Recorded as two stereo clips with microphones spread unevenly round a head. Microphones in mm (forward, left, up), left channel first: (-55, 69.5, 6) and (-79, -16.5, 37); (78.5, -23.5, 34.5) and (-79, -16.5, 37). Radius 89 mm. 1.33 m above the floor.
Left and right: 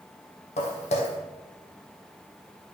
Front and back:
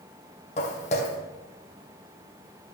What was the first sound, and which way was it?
Footsteps, 50° left.